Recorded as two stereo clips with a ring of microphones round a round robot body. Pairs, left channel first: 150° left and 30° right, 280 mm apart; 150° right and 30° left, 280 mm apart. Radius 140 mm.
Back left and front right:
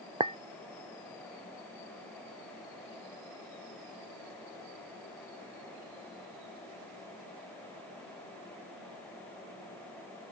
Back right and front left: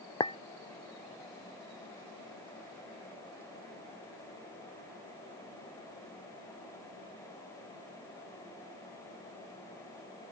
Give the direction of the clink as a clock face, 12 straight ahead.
3 o'clock.